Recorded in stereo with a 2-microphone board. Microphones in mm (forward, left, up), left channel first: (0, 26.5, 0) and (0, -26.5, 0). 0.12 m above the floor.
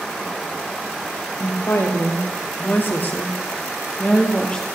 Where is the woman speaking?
60° left (ahead or behind), 2.5 m; by 4.6 s 15° left (ahead or behind), 2.5 m.